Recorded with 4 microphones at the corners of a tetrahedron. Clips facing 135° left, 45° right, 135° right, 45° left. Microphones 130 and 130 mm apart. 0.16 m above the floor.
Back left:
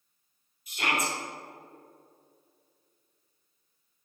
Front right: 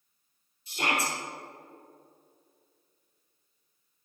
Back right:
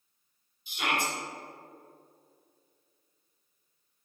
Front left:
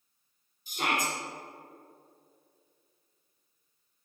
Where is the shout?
5° left, 3 m.